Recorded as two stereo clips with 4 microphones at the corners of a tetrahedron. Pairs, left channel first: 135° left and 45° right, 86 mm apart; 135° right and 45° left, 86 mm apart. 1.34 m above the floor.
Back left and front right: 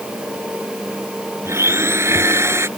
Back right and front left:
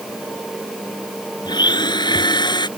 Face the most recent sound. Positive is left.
turn(degrees=-105)